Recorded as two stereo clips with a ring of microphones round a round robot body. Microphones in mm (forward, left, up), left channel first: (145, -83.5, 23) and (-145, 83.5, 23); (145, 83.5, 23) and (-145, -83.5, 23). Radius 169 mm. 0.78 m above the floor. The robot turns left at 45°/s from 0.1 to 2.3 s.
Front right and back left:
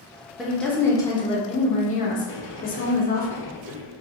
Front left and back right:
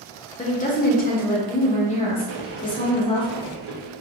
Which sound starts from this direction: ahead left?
A woman speaking, at 0.4 s.